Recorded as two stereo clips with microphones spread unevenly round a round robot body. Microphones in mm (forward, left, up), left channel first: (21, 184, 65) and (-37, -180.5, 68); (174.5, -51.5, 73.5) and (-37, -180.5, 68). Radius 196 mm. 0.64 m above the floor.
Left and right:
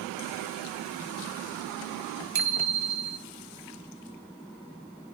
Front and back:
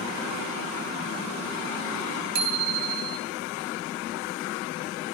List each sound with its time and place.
2.4 s a bicycle bell: 145° right, 3 m